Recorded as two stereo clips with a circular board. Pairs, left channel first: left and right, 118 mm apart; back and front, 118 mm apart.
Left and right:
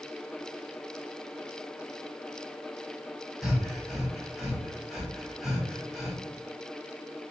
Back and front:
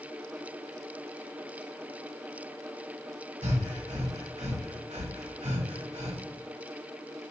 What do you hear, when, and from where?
3.4 s breathing: straight ahead, 1.5 m